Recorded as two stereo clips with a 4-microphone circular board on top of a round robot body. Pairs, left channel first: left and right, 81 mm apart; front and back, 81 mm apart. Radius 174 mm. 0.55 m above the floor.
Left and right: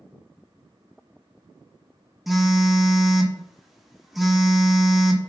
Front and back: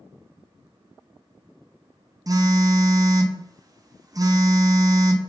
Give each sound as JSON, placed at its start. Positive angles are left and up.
{"t": 2.3, "sound": "a phone buzzing", "azimuth_deg": 180, "distance_m": 0.6}